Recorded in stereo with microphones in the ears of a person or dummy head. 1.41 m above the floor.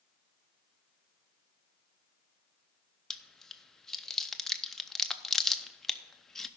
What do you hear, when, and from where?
3.1 s chewing: centre (ahead or behind), 0.5 m